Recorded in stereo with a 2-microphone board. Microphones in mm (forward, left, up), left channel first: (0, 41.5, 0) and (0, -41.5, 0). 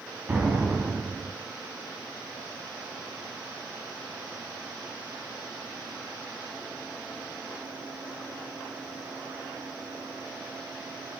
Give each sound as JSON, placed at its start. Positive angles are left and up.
{"t": 0.3, "sound": "an explosion", "side_deg": -15, "distance_m": 0.6}